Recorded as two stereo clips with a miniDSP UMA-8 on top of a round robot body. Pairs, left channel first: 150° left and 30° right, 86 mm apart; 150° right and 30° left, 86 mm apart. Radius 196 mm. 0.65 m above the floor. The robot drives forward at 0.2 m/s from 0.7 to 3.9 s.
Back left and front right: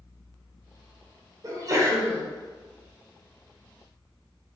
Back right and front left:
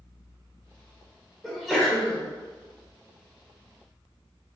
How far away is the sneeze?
About 0.9 m.